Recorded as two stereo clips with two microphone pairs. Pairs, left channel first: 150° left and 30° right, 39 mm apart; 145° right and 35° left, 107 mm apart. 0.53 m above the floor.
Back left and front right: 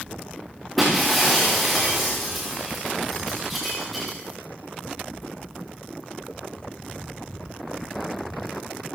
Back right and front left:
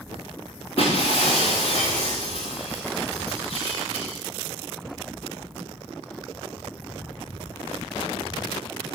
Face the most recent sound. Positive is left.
turn(degrees=-120)